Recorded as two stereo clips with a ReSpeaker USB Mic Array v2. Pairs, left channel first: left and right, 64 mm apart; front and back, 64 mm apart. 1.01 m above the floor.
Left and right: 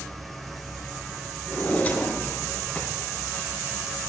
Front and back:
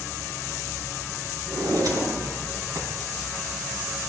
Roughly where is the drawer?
Behind left.